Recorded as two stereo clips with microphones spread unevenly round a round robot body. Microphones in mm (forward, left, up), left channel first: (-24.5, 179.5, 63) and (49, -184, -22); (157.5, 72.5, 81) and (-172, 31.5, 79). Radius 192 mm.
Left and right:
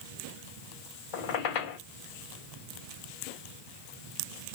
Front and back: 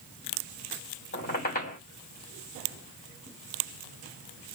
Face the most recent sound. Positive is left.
turn(degrees=75)